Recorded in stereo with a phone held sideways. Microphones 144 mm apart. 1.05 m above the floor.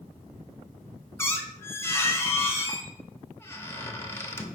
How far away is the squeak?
About 0.5 m.